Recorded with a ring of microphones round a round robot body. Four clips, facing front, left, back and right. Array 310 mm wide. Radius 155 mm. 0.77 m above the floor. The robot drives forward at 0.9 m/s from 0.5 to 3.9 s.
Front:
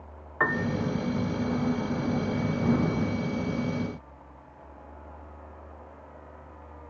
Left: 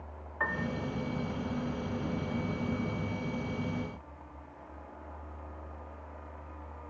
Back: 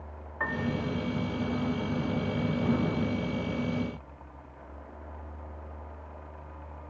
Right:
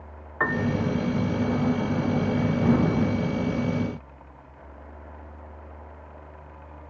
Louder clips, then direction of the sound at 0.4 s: Right 9 dB, front 4 dB; 50° right.